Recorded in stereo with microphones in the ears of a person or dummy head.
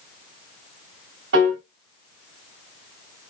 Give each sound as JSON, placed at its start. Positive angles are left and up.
{"t": 1.3, "sound": "a piano", "side_deg": -70, "distance_m": 2.5}